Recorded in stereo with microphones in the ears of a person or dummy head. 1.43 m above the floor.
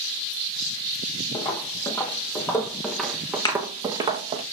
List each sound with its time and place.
1.3 s footsteps: 30° left (ahead or behind), 3 m; by 4.4 s 30° right (ahead or behind), 2 m
3.5 s a thud: 20° left (ahead or behind), 3 m